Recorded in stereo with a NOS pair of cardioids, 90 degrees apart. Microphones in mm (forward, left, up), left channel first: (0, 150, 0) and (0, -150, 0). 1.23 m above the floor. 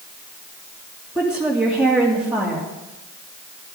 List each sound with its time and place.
1.1 s a woman speaking: 5° right, 2.5 m